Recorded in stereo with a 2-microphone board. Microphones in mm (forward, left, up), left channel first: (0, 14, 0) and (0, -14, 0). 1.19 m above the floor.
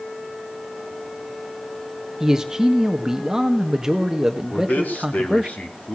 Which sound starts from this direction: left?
A man speaking, at 4.5 s.